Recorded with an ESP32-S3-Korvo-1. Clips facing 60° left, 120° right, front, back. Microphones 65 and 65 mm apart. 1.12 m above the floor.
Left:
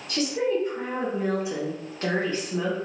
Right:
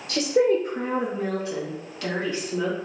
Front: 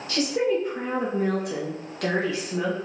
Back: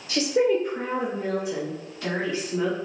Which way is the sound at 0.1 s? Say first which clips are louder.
Right 5 dB, back 2 dB; 115° right.